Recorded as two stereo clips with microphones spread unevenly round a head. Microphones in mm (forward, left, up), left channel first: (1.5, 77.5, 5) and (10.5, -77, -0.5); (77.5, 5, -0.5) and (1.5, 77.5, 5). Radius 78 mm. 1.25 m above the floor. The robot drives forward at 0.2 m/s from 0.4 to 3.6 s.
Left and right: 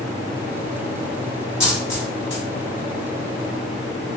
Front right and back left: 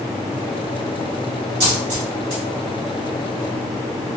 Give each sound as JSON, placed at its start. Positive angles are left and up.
{"t": 1.6, "sound": "a dropped coin", "azimuth_deg": 165, "distance_m": 1.9}